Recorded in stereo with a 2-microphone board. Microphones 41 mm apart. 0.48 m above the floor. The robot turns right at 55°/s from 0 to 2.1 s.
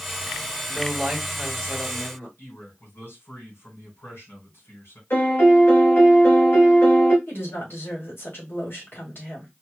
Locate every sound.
0.7 s a man speaking: 30° right, 3 m; by 2.3 s 50° left, 3 m
2.4 s a man speaking: 65° left (ahead or behind), 3 m
5.1 s a piano: 65° left (ahead or behind), 2 m
7.3 s a woman speaking: 65° left (ahead or behind), 2.5 m